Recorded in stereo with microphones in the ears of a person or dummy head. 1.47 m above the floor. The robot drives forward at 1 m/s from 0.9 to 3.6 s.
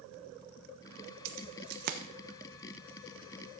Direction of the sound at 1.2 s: 65° right (ahead or behind).